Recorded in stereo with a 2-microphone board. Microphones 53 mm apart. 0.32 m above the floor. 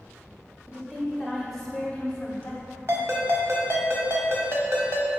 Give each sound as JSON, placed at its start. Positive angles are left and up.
{"t": 0.7, "sound": "a woman speaking", "side_deg": -20, "distance_m": 1.3}
{"t": 2.9, "sound": "a ringtone", "side_deg": -55, "distance_m": 0.9}